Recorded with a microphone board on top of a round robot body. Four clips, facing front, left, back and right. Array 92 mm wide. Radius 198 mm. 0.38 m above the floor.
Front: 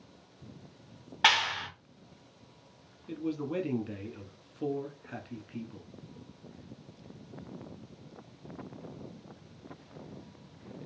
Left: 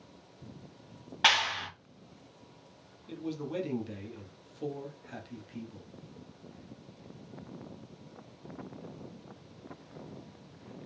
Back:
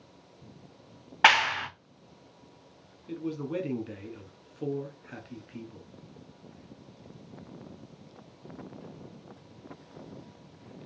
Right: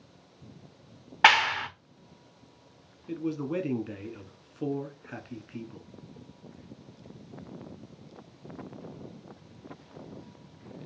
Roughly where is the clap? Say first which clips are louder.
Right 7 dB, back 5 dB; behind right.